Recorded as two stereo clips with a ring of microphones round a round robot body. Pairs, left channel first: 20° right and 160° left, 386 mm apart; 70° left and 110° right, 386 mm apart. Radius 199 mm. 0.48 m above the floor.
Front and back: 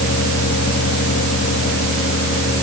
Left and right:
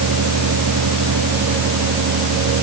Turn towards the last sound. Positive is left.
No sound to turn to.